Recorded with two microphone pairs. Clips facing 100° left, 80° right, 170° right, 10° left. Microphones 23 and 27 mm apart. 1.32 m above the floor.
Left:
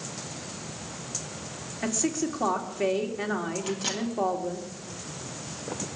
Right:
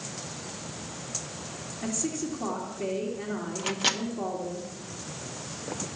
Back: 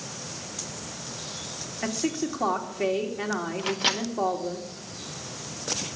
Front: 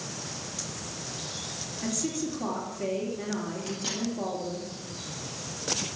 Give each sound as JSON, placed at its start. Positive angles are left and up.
{"t": 1.8, "sound": "a woman speaking", "azimuth_deg": 145, "distance_m": 3.0}
{"t": 3.6, "sound": "a microwave", "azimuth_deg": -135, "distance_m": 1.3}